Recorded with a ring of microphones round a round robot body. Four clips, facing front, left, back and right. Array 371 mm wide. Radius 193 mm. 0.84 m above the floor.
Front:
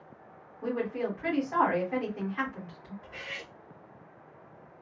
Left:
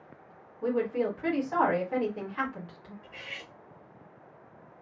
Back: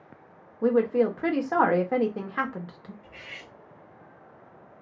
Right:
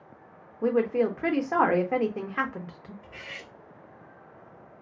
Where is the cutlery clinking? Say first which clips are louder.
Right 2 dB, front 3 dB; 25° right, 1.0 m.